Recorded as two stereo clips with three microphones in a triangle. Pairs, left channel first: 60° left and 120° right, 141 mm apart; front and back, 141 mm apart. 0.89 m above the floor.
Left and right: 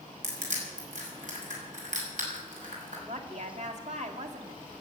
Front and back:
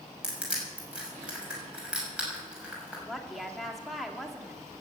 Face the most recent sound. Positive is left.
turn(degrees=-90)